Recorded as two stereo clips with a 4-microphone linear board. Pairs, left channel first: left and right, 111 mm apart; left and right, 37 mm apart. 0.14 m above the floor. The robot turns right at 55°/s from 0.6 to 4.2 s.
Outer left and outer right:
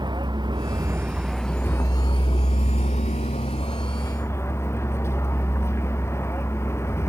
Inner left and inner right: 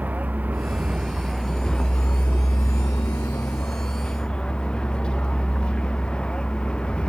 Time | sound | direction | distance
0.0 | a vehicle | 40° right | ?